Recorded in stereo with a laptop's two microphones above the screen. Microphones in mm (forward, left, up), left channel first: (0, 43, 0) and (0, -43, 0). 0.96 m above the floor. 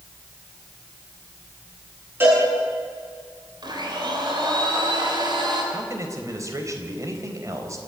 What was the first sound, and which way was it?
A cowbell, 25° right (ahead or behind).